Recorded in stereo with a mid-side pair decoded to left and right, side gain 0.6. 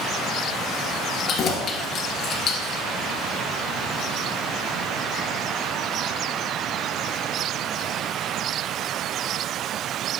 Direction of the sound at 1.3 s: 45° left.